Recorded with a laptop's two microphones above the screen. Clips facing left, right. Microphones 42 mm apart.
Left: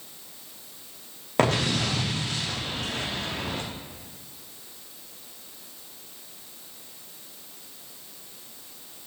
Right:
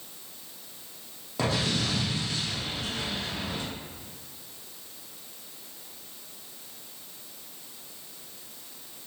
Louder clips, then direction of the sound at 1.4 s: Left 5 dB; 55° left (ahead or behind).